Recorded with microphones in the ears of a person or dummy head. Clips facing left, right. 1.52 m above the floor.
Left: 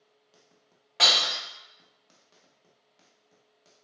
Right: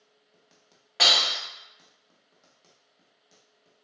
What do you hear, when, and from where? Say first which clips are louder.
1.0 s breaking glass: right 1 dB; 5° left (ahead or behind), 1.1 m